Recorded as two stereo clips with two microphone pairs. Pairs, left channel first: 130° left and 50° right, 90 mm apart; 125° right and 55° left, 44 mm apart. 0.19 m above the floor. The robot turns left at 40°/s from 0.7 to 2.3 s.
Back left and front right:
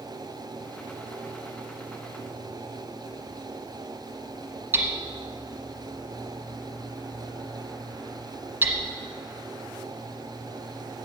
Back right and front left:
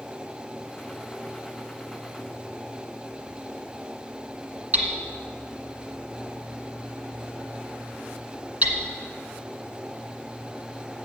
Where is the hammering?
10° left, 1.7 m.